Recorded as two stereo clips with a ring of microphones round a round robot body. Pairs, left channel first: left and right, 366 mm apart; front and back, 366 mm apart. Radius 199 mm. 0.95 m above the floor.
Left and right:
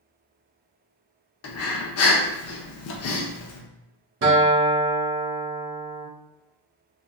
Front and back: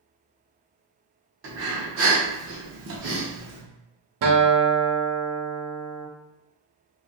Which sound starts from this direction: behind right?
A guitar, at 4.2 s.